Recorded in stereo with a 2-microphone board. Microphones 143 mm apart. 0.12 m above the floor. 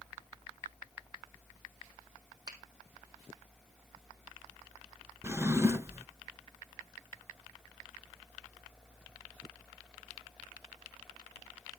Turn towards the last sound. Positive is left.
turn(degrees=-20)  # may be behind; listen again after turning